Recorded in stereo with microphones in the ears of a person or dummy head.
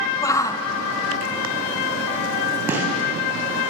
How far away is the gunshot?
About 7 m.